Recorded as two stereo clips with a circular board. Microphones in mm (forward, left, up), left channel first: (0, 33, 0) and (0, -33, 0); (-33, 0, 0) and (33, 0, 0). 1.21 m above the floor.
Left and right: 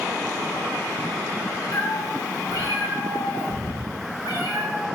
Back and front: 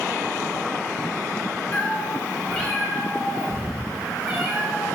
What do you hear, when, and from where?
1.7 s a cat meowing: 120° left, 3 m; by 4.9 s 80° left, 4.5 m